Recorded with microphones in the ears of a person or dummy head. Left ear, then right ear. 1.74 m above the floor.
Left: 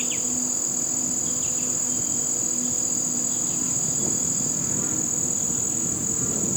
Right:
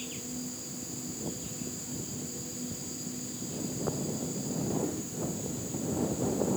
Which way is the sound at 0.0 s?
45° left (ahead or behind).